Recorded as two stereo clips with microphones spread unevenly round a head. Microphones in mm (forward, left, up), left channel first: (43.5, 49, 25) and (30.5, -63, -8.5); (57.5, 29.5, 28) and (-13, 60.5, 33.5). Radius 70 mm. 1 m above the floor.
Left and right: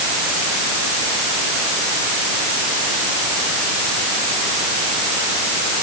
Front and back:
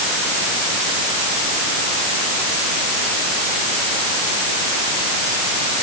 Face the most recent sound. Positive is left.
No sound to turn to.